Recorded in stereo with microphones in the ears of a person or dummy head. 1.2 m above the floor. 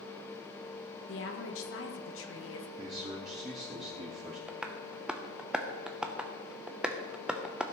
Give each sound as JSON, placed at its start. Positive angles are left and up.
{"t": 1.1, "sound": "a woman speaking", "side_deg": 65, "distance_m": 1.5}
{"t": 2.8, "sound": "a man speaking", "side_deg": -30, "distance_m": 1.4}
{"t": 4.5, "sound": "tapping", "side_deg": -5, "distance_m": 0.7}